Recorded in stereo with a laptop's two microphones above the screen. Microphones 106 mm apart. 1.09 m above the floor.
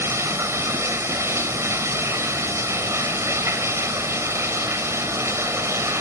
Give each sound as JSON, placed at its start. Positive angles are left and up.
{"t": 0.0, "sound": "running water", "side_deg": -25, "distance_m": 3.0}